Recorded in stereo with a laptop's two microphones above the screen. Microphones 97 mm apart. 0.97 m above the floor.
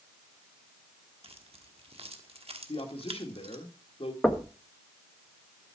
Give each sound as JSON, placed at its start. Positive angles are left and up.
{"t": 1.2, "sound": "keys jangling", "side_deg": -85, "distance_m": 1.3}
{"t": 2.7, "sound": "a man speaking", "side_deg": 75, "distance_m": 2.0}
{"t": 4.2, "sound": "knocking", "side_deg": 10, "distance_m": 1.2}